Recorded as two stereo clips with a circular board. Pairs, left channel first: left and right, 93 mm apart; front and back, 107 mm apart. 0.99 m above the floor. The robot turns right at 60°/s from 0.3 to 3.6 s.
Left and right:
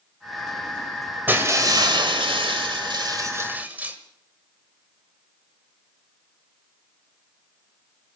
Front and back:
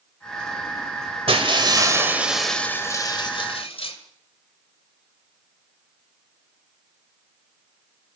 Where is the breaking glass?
160° right, 2.0 m; by 4.0 s 20° right, 2.0 m.